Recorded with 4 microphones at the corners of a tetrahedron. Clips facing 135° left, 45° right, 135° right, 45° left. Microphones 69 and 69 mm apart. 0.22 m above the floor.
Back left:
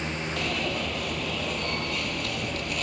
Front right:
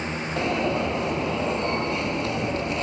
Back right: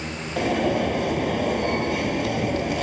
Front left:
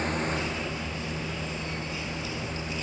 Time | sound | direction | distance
0.4 | an alarm | 110° right | ?